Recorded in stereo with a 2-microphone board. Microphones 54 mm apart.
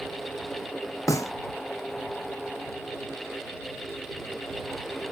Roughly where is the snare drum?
Left.